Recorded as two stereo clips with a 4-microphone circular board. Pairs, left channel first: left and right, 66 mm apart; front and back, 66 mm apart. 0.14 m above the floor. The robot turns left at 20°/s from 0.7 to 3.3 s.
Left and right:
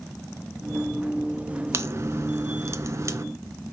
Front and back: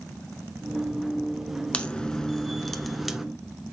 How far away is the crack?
About 0.6 m.